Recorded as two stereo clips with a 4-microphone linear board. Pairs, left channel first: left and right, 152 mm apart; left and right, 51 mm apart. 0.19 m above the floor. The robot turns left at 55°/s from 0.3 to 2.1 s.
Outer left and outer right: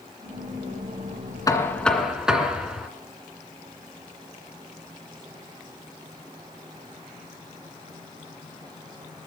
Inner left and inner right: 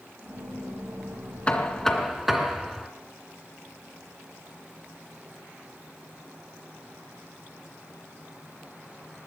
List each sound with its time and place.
1.5 s knocking: 30° left, 2 m; by 2.9 s 5° right, 2 m